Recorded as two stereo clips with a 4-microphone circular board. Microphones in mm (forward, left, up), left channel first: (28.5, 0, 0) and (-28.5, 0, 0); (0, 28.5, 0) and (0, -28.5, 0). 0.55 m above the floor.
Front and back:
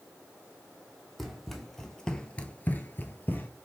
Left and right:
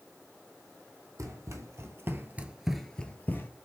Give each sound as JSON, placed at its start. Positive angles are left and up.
{"t": 1.2, "sound": "running footsteps", "azimuth_deg": -90, "distance_m": 1.2}